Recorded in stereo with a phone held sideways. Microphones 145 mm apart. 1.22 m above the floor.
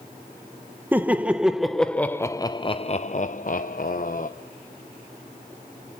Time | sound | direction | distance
0.9 | laughter | 15° right (ahead or behind) | 1.2 m